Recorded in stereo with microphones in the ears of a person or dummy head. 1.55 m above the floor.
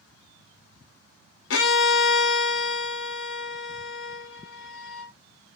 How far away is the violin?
About 0.9 m.